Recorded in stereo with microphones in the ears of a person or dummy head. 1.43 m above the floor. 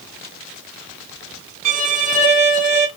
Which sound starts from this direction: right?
A violin, at 1.6 s.